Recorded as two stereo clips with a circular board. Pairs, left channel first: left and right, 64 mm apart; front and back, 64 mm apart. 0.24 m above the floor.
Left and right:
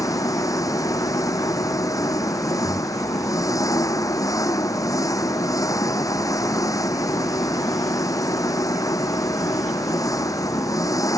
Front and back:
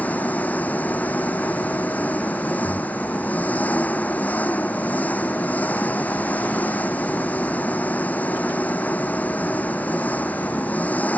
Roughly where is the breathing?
Ahead left.